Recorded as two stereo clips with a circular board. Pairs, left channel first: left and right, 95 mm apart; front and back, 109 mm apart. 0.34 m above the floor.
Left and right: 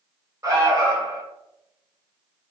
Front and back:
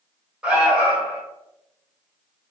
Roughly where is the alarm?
Right.